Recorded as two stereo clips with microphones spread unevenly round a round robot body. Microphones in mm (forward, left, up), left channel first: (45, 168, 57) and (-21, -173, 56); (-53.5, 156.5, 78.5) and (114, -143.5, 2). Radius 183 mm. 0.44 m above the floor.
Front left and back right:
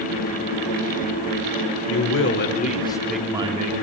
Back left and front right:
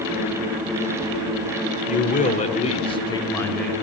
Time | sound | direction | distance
1.9 | a man speaking | 45° left | 1.4 m